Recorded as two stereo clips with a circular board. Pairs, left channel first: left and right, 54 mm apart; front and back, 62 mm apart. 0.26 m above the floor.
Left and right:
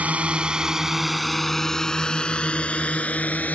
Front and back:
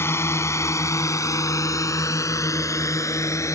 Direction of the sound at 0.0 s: 35° right.